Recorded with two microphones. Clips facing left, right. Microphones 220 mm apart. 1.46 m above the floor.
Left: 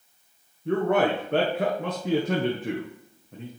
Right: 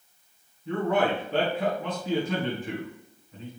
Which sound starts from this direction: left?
A man speaking, at 0.7 s.